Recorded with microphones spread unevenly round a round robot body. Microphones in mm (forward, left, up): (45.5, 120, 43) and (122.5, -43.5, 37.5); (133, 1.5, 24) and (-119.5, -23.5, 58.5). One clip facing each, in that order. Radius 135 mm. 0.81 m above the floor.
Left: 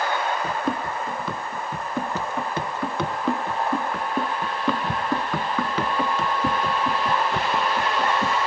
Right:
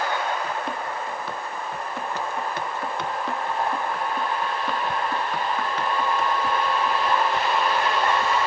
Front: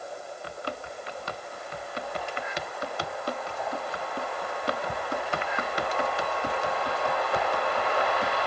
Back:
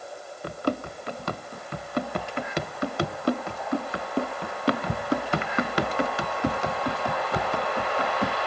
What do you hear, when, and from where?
0.4 s running footsteps: 135° left; by 8.4 s 165° left